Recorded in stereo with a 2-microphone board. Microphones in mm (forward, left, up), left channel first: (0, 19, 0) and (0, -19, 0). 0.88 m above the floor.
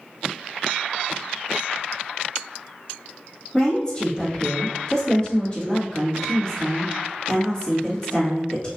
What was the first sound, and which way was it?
A woman speaking, 20° left (ahead or behind).